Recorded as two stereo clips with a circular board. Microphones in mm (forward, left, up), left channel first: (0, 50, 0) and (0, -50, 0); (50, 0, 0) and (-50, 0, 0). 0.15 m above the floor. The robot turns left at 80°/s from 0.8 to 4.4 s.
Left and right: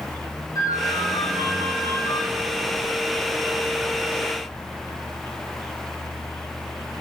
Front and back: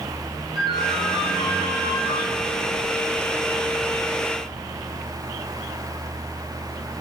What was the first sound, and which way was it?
A ringtone, 140° left.